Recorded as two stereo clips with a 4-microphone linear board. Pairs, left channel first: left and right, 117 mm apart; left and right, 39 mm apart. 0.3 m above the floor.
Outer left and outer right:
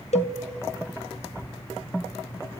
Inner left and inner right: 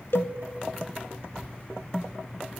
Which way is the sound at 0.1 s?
70° left (ahead or behind).